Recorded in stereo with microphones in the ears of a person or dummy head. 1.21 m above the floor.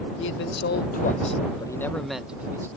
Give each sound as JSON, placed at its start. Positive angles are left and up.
{"t": 0.2, "sound": "a man speaking", "side_deg": 65}